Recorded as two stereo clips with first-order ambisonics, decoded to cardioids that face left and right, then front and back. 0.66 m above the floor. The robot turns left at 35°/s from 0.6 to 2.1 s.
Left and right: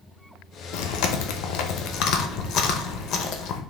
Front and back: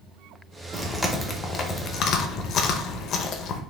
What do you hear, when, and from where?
0.7 s chewing: 100° left, 0.6 m; by 3.6 s 50° left, 0.6 m